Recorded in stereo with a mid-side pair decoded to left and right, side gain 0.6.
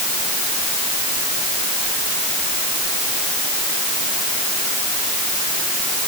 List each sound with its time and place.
Only background noise.